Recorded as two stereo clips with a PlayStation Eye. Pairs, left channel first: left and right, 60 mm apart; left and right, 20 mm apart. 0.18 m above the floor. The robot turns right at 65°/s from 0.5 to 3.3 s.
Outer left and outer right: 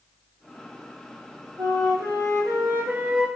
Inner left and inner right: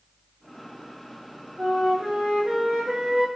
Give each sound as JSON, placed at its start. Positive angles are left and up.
{"t": 1.6, "sound": "a flute", "azimuth_deg": -125, "distance_m": 1.0}